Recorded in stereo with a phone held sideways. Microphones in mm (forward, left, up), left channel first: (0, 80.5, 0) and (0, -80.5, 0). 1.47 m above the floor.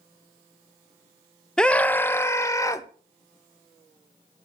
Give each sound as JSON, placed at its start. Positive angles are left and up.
{"t": 1.6, "sound": "a scream", "side_deg": 5, "distance_m": 0.7}